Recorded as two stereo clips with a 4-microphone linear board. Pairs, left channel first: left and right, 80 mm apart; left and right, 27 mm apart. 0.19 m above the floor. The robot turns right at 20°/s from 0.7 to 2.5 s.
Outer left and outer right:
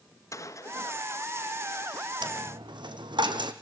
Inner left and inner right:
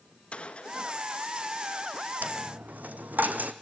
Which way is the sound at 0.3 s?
45° left (ahead or behind).